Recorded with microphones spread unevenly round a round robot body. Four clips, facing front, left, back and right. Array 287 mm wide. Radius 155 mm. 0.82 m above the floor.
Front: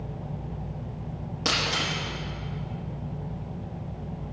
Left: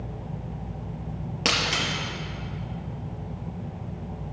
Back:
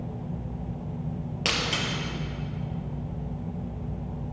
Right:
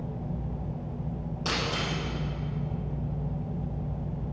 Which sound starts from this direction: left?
Breaking glass, at 1.4 s.